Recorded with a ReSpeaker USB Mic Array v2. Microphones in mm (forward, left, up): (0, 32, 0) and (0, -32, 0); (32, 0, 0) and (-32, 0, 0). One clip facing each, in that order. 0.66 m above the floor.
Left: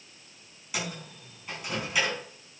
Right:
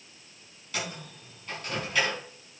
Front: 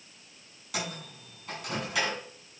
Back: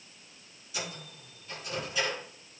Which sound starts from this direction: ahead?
A microwave, at 0.7 s.